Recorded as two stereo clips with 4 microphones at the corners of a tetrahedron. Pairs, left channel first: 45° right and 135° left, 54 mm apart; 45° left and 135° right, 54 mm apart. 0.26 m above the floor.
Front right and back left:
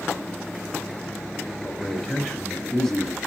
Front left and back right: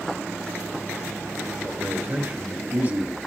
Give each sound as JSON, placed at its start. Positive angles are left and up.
{"t": 1.6, "sound": "a man speaking", "azimuth_deg": -115, "distance_m": 1.1}